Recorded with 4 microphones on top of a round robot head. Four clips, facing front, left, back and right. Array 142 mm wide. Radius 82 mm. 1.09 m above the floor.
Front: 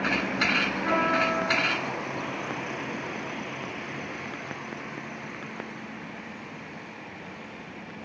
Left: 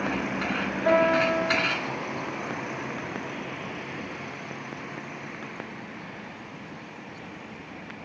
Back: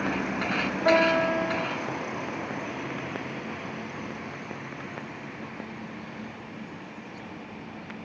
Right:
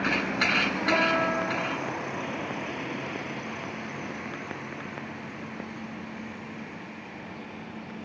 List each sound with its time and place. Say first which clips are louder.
0.8 s a piano: left 6 dB, back 5 dB; 150° left, 2.5 m